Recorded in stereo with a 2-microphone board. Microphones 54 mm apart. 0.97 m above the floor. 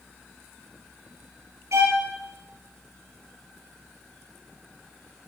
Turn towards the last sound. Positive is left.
turn(degrees=-70)  # may be behind; listen again after turning